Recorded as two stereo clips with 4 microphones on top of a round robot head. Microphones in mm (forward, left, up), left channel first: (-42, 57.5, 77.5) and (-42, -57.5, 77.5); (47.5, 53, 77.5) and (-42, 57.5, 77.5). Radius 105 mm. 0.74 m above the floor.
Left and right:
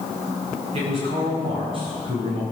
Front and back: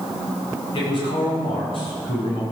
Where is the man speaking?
45° right, 6.5 m; by 2.4 s 35° right, 6.5 m.